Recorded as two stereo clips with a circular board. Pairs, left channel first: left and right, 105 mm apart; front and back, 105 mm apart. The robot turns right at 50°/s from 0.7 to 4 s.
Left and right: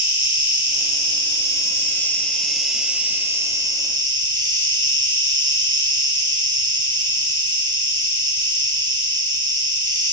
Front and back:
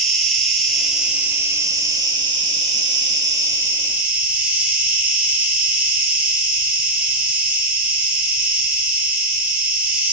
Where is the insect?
85° left, 0.9 m; by 10.1 s 110° right, 0.9 m.